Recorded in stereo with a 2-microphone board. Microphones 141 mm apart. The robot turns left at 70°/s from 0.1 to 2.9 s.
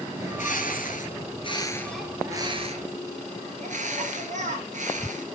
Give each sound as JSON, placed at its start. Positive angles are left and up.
{"t": 0.2, "sound": "a bird", "azimuth_deg": 125, "distance_m": 2.5}